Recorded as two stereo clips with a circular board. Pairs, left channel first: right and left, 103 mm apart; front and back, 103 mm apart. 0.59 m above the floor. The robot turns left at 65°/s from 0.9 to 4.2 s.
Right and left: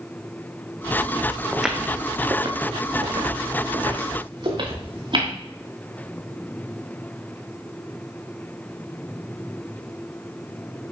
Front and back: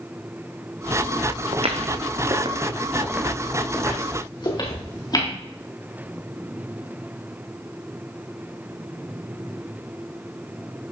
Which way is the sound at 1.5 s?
Straight behind.